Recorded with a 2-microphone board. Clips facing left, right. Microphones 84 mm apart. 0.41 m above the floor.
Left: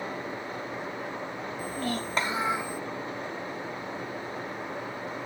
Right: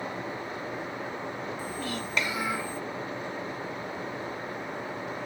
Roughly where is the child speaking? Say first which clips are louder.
Left 2 dB; left.